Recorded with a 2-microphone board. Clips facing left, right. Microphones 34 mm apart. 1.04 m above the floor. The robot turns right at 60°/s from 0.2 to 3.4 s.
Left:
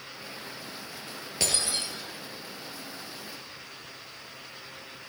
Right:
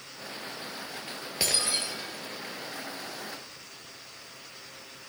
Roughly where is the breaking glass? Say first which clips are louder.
Right 1 dB; behind.